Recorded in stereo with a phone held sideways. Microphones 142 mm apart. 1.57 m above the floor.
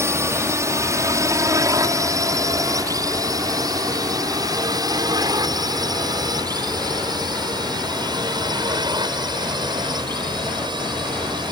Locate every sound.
0.0 s a drone: 20° right (ahead or behind); by 11.5 s 30° right (ahead or behind)